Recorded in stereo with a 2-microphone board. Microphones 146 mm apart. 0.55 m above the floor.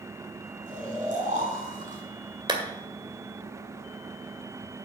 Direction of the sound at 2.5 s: 35° right (ahead or behind).